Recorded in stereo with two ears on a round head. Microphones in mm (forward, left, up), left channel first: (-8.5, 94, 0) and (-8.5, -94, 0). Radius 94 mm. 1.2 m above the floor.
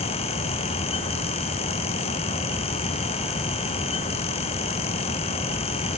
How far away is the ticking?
I don't hear ticking.